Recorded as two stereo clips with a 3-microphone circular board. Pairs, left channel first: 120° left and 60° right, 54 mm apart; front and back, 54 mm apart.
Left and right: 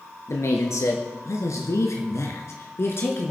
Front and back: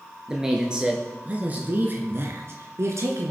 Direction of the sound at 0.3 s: 100° left.